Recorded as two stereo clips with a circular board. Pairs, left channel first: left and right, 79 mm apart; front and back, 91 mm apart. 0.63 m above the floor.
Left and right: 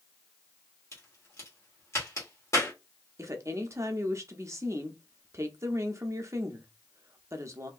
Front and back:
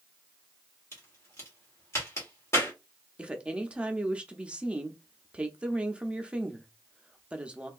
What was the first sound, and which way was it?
A crack, 50° left.